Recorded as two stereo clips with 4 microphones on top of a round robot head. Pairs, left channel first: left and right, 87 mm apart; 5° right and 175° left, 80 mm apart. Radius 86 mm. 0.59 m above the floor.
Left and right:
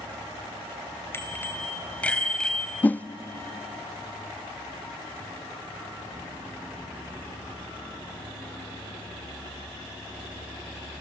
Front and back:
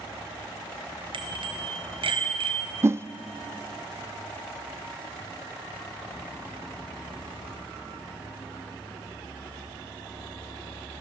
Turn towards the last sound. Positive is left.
turn(degrees=145)